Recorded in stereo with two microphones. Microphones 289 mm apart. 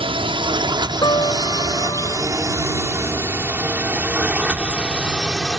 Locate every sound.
0.0 s a drone: 20° right (ahead or behind); by 5.6 s centre (ahead or behind)
1.0 s a piano: 15° left (ahead or behind)